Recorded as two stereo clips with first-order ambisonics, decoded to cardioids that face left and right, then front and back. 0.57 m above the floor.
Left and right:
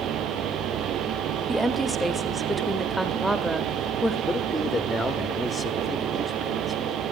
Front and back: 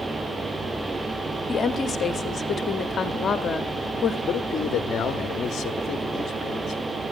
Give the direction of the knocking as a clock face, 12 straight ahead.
I don't hear knocking.